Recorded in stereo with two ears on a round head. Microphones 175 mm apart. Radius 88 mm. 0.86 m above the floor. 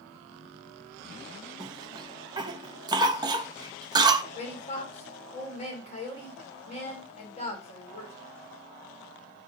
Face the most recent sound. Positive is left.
turn(degrees=35)  # may be behind; listen again after turning